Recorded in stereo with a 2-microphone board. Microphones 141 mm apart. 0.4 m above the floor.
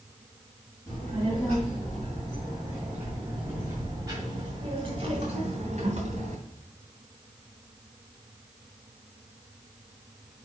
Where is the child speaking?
15° left (ahead or behind), 2.5 m; by 6.4 s 60° right (ahead or behind), 2.5 m.